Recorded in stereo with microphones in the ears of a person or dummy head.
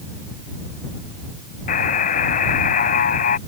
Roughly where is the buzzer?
Left.